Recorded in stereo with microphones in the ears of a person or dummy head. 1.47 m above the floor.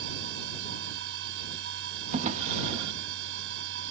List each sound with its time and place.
0.0 s a machine running: 70° right (ahead or behind)
2.1 s a drawer: 40° right (ahead or behind)